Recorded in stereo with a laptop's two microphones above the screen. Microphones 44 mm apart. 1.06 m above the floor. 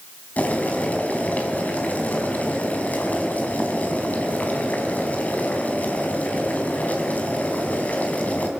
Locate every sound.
0.4 s boiling: 40° left (ahead or behind), 4 m